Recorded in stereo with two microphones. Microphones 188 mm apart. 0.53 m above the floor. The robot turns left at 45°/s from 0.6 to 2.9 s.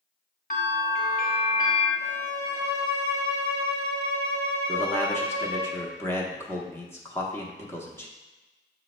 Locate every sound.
0.5 s a bell: 105° left, 1.4 m; by 1.9 s 50° left, 1.4 m
2.0 s a violin: straight behind, 1.4 m; by 5.7 s 140° left, 1.4 m
4.7 s a man speaking: 15° left (ahead or behind), 0.6 m